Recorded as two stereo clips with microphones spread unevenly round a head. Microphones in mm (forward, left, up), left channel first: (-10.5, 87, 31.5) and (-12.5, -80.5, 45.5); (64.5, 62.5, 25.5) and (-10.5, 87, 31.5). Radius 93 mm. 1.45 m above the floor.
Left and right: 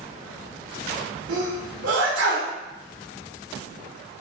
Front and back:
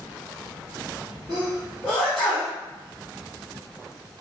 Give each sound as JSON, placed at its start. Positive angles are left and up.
{"t": 1.3, "sound": "a sneeze", "azimuth_deg": -95, "distance_m": 1.5}